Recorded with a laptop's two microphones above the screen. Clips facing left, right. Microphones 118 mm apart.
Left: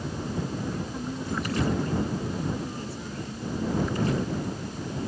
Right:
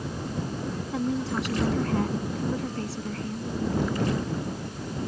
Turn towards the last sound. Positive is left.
turn(degrees=-80)